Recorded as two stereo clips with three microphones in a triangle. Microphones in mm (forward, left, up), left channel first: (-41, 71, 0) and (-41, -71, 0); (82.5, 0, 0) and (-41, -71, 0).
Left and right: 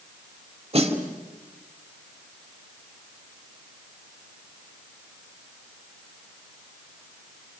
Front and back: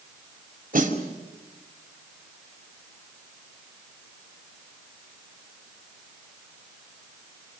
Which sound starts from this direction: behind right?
A snare drum, at 0.7 s.